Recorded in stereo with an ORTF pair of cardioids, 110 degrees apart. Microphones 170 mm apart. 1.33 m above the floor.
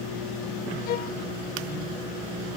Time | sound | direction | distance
0.9 | a violin | 60° left | ?